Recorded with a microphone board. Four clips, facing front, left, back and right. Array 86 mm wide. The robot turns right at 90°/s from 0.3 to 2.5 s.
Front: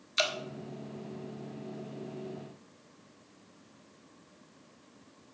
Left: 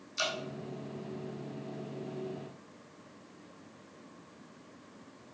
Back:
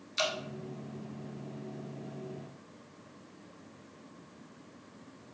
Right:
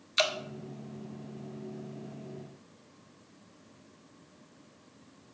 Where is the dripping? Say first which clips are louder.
Right 6 dB, front 1 dB; 65° right, 1.0 m; by 0.3 s 60° right, 1.0 m.